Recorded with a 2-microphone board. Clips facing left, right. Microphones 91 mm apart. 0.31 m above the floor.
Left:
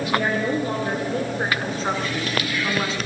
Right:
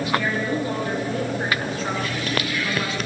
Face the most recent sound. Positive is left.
turn(degrees=30)  # may be behind; listen again after turning